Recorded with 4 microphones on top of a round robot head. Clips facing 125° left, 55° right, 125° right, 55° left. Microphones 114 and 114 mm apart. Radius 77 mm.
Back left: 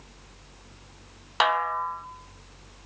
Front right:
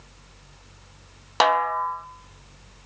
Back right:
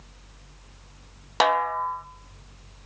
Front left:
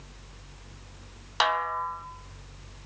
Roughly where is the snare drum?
Right.